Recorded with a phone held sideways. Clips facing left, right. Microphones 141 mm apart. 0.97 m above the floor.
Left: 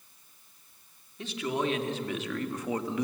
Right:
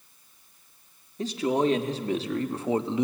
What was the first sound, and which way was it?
A man speaking, 40° right (ahead or behind).